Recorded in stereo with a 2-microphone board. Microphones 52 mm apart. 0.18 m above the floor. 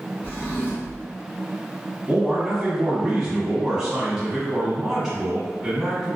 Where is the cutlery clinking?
No cutlery clinking in this recording.